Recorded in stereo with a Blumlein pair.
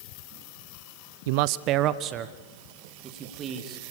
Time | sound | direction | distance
1.3 | a man speaking | 50° right | 0.5 m